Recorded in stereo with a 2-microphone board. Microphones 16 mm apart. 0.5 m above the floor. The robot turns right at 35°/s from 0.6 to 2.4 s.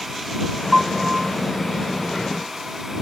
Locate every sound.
0.7 s a piano: 40° right (ahead or behind); by 1.3 s 55° right (ahead or behind)